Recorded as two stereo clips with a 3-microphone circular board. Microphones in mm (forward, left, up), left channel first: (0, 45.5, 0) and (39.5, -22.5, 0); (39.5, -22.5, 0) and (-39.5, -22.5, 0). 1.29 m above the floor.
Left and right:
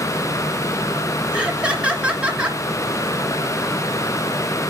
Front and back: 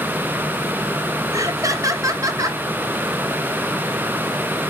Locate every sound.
1.3 s laughter: 135° right, 2.0 m